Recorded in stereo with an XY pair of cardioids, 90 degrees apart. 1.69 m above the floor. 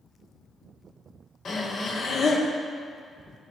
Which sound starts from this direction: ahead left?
Breathing, at 1.4 s.